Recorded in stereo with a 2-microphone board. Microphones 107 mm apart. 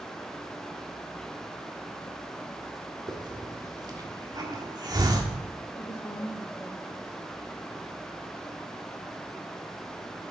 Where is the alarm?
I don't hear an alarm.